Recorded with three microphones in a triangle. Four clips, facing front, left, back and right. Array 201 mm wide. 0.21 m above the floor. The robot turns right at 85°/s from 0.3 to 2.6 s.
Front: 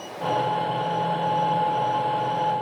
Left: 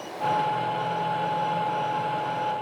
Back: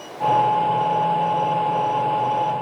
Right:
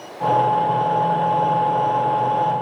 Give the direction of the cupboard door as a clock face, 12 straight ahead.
I don't hear a cupboard door.